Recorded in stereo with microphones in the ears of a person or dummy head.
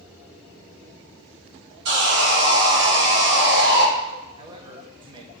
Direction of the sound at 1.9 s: 80° right.